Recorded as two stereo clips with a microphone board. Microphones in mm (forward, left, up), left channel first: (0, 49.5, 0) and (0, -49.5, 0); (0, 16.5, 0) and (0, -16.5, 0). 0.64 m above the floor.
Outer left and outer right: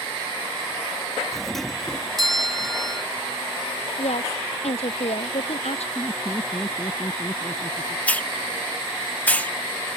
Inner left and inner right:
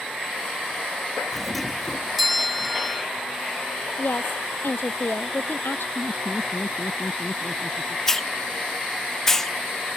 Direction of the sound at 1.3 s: Centre (ahead or behind).